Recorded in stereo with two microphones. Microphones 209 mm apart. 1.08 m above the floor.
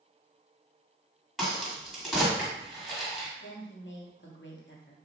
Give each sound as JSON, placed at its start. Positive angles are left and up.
{"t": 1.4, "sound": "a crack", "side_deg": 0, "distance_m": 2.0}
{"t": 3.4, "sound": "a woman speaking", "side_deg": 60, "distance_m": 0.8}